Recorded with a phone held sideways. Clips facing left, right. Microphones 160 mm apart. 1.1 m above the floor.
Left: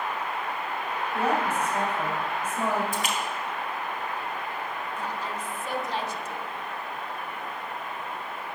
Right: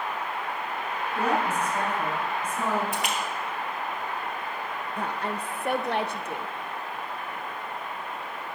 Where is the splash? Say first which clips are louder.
Even; 60° right (ahead or behind), 1.7 m.